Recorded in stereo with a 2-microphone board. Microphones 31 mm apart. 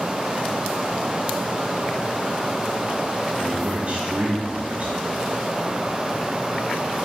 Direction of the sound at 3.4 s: 40° right (ahead or behind).